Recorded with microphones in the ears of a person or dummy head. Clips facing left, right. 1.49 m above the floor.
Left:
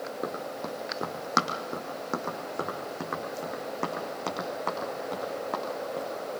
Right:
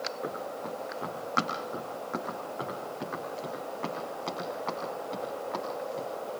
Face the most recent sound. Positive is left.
turn(degrees=70)  # may be behind; listen again after turning